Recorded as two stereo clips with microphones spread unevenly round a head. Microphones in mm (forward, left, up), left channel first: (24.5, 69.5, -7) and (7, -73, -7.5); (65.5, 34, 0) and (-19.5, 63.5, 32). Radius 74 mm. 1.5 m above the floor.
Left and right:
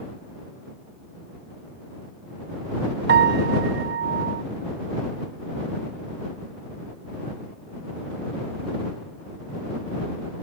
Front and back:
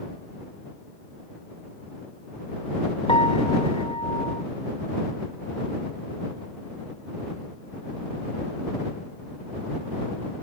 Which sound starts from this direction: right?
A piano, at 3.1 s.